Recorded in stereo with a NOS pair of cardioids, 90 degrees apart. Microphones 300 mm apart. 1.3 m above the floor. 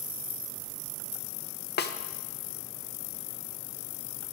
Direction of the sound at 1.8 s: 35° left.